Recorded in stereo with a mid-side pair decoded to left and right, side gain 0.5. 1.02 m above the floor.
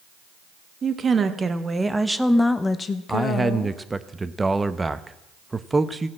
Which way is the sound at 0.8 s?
40° right.